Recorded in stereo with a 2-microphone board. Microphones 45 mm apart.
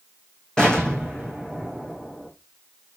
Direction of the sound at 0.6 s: 15° left (ahead or behind).